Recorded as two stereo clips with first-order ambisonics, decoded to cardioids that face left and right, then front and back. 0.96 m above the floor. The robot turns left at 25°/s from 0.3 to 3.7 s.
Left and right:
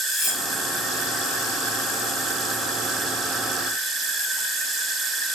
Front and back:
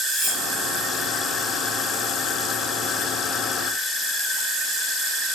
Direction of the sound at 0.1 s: 105° left.